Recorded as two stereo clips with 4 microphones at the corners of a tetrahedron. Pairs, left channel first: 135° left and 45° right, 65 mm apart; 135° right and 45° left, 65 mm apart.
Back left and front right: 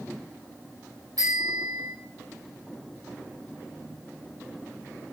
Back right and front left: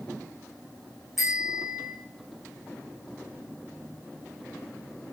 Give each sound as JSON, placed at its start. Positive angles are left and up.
{"t": 1.2, "sound": "a bicycle bell", "azimuth_deg": -45, "distance_m": 6.5}